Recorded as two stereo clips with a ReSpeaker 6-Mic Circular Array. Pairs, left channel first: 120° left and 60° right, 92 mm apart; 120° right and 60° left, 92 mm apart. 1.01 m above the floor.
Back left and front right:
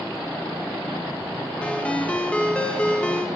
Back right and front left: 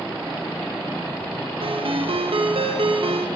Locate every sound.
1.6 s a ringtone: 45° left, 0.5 m